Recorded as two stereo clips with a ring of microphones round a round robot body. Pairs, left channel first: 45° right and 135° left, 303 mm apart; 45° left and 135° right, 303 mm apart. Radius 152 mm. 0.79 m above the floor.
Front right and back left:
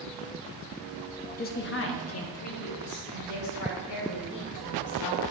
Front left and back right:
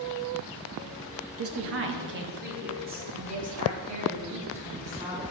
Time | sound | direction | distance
1.4 | a woman speaking | 105° right | 0.8 m